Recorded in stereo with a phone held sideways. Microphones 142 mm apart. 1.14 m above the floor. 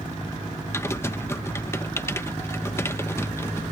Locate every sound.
0.7 s typing on a keyboard: 20° left (ahead or behind)